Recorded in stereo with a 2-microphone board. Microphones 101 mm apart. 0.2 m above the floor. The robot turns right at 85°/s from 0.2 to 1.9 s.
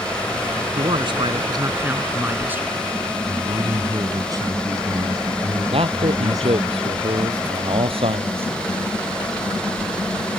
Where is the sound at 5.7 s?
70° right (ahead or behind).